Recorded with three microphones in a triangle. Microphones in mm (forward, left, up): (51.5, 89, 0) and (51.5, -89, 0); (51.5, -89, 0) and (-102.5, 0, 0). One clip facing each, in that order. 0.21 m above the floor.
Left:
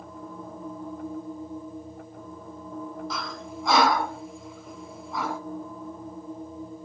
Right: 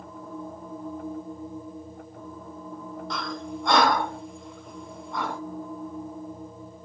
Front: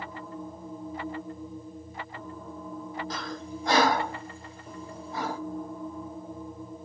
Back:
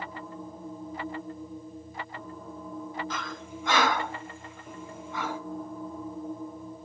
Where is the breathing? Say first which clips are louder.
Right 3 dB, front 2 dB; 5° left, 1.5 m.